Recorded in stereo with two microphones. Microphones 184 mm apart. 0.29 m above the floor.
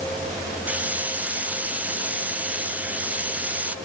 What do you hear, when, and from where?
0.7 s a hiss: 5° right (ahead or behind)